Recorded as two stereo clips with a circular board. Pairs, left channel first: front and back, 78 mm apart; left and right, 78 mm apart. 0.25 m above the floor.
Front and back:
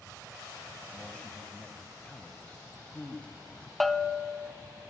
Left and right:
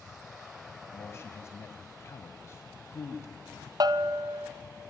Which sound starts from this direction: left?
A man speaking, at 0.9 s.